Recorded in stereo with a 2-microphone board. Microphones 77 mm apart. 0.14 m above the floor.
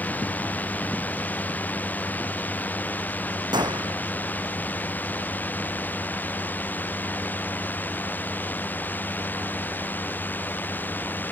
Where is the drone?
20° left (ahead or behind); by 11.3 s 25° left (ahead or behind).